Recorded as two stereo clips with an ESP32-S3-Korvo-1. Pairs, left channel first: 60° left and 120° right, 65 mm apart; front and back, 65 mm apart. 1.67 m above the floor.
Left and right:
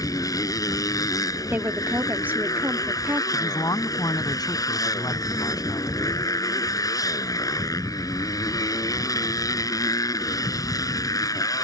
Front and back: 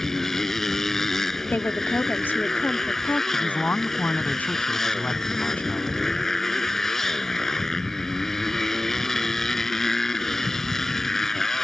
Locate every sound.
0.0 s a motorcycle: 85° left
1.5 s a woman speaking: 60° right
3.3 s a man speaking: 65° left